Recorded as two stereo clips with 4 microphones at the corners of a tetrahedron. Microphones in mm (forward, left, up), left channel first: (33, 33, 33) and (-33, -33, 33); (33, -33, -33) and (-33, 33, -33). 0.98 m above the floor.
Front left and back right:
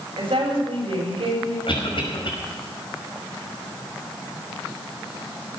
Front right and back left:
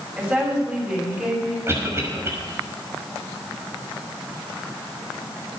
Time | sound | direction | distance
0.2 | a woman speaking | 150° right | 6.5 m
1.7 | a cough | 75° left | 5.5 m